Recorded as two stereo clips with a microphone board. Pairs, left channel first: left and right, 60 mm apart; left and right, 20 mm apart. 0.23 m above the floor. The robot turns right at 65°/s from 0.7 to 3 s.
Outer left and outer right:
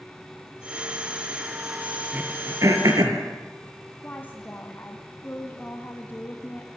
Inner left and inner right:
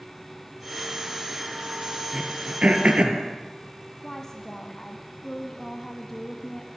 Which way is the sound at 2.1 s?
30° right (ahead or behind).